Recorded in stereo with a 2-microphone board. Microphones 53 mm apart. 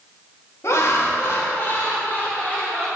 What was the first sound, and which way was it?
Laughter, 60° left (ahead or behind).